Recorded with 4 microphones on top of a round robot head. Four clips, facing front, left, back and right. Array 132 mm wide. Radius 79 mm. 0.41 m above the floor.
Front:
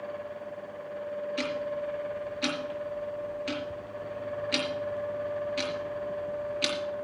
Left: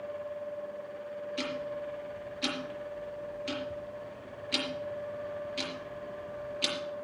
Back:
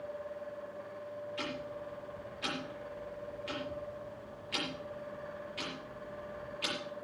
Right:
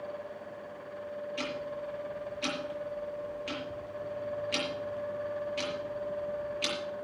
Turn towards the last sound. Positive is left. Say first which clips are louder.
# left 3 dB, front 10 dB
turn(degrees=10)